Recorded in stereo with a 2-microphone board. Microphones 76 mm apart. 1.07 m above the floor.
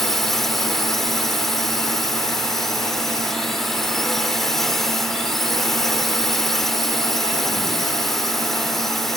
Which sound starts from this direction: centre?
A drone, at 0.0 s.